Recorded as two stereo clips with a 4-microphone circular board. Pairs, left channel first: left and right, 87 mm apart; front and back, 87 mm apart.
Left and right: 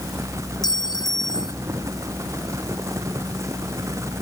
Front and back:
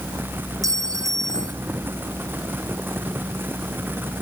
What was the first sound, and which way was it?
A clink, 130° left.